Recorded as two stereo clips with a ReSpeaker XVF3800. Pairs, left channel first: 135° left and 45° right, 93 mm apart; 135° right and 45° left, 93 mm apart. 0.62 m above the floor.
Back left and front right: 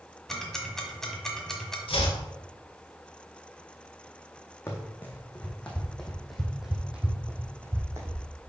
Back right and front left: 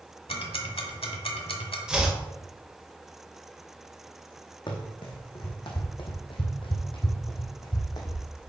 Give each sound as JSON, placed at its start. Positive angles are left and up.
{"t": 0.3, "sound": "ticking", "azimuth_deg": -140, "distance_m": 1.3}
{"t": 1.9, "sound": "chopping", "azimuth_deg": 125, "distance_m": 1.6}
{"t": 4.7, "sound": "running footsteps", "azimuth_deg": -160, "distance_m": 2.0}